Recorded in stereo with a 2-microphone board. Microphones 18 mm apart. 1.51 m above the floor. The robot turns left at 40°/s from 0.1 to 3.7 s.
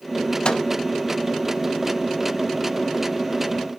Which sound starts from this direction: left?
A microwave, at 0.5 s.